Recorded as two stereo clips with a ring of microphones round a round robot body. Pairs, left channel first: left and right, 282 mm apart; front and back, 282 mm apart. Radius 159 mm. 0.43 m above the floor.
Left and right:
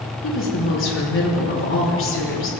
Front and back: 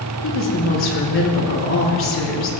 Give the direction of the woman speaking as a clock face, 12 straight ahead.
11 o'clock.